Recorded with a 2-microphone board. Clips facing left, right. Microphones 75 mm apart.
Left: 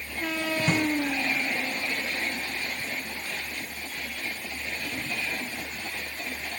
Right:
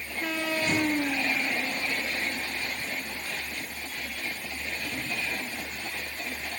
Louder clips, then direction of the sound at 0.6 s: Left 1 dB; 50° left (ahead or behind).